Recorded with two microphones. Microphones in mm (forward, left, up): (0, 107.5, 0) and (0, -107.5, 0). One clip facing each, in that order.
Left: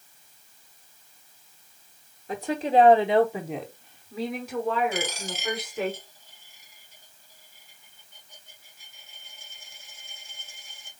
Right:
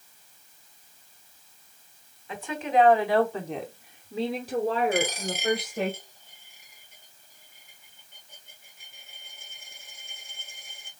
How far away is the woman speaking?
About 1.3 m.